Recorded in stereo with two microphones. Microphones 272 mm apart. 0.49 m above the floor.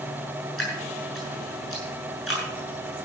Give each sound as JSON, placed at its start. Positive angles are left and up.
{"t": 0.6, "sound": "dripping", "side_deg": 50, "distance_m": 7.5}